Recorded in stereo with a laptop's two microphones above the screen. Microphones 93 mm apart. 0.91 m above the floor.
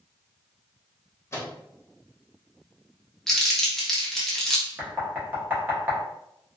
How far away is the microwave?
About 0.8 m.